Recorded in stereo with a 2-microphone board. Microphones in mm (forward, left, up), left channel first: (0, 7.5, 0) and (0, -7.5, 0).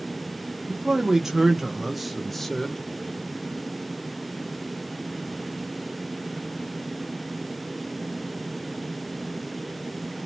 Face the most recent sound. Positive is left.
turn(degrees=35)  # may be behind; listen again after turning